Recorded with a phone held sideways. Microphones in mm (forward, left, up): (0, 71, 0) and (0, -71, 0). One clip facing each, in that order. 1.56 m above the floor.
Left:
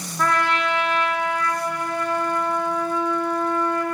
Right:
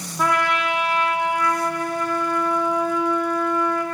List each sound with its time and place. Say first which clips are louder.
0.2 s a trumpet: even; 10° right (ahead or behind), 1.1 m